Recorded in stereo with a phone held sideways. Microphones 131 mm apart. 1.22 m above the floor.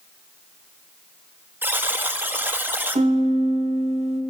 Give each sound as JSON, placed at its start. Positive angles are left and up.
{"t": 1.6, "sound": "a buzzer", "side_deg": -15, "distance_m": 0.6}
{"t": 3.0, "sound": "a piano", "side_deg": -55, "distance_m": 1.0}